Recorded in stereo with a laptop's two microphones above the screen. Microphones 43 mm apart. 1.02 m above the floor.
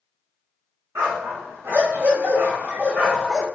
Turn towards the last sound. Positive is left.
turn(degrees=5)  # may be behind; listen again after turning